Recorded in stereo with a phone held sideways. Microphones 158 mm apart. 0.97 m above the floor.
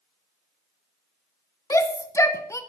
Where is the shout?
20° left (ahead or behind), 0.6 m.